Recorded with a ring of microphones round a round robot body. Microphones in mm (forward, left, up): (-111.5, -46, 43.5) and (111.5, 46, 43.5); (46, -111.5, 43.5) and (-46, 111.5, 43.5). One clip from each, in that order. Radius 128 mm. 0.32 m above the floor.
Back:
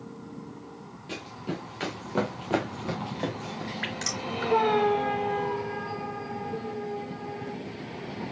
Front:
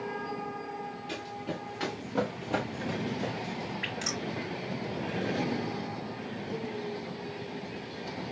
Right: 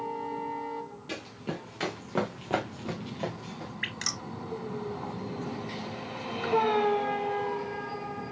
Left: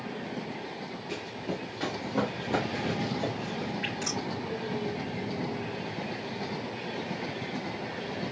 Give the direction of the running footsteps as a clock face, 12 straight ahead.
2 o'clock.